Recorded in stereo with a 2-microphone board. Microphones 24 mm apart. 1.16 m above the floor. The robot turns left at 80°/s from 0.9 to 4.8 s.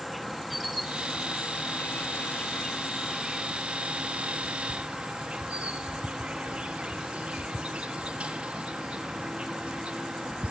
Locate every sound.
0.0 s an insect: 175° right, 1.5 m; by 10.5 s 125° right, 1.5 m